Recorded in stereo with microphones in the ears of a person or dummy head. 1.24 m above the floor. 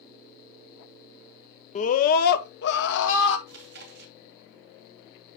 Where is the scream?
40° left (ahead or behind), 0.8 m; by 3.4 s 75° left (ahead or behind), 1.8 m.